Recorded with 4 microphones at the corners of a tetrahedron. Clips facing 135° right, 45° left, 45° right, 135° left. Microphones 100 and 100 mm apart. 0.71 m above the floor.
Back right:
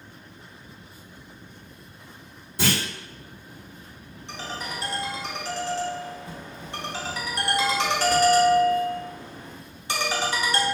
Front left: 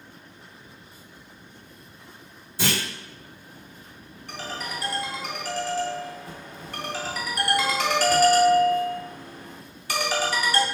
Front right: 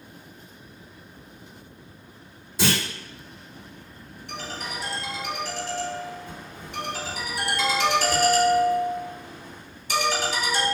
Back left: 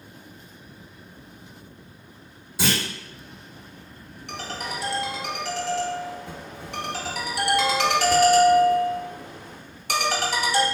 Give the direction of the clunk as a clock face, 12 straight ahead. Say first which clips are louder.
Back right 2 dB, front right 1 dB; 5 o'clock.